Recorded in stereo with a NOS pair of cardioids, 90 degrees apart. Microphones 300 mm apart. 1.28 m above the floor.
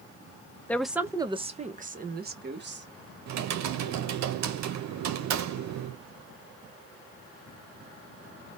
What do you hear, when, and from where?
0.7 s a woman speaking: 5° left, 0.6 m; by 2.9 s 40° right, 1.5 m
3.3 s typing on a keyboard: 65° right, 0.7 m